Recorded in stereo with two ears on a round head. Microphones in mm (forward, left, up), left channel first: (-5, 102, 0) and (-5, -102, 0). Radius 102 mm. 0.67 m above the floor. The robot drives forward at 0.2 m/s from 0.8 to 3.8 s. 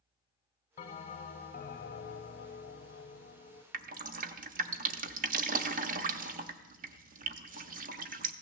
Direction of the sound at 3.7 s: 35° right (ahead or behind).